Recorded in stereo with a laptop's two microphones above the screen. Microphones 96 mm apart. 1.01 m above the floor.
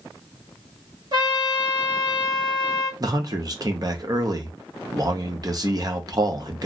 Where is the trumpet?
50° right (ahead or behind), 1.3 m.